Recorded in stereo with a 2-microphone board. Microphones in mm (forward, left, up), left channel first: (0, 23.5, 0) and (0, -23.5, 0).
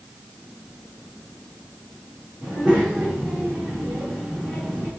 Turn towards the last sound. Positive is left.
turn(degrees=-20)  # may be behind; listen again after turning